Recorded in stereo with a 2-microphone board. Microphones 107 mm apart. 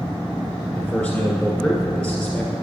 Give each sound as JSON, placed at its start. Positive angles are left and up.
{"t": 0.7, "sound": "a man speaking", "side_deg": 5, "distance_m": 1.5}